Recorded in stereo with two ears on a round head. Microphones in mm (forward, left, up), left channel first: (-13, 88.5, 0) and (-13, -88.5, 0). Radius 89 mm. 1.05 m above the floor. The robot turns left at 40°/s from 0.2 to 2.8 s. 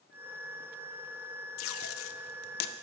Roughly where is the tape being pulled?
Left.